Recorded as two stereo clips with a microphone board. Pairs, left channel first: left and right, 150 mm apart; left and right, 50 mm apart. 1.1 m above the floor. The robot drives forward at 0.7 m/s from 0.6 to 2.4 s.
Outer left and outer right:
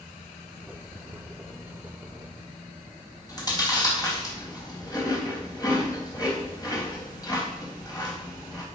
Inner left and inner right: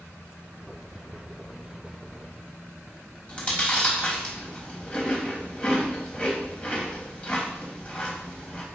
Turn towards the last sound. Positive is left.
turn(degrees=25)  # may be behind; listen again after turning